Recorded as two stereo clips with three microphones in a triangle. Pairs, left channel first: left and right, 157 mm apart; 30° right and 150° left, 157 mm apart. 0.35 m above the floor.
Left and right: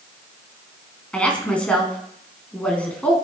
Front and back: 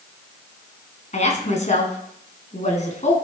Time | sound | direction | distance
1.1 | a woman speaking | 5° left | 3 m